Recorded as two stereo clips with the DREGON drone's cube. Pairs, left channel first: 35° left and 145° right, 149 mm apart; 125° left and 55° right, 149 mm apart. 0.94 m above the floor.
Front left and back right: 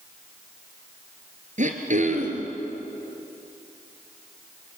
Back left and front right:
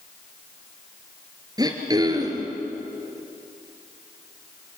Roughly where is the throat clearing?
Behind right.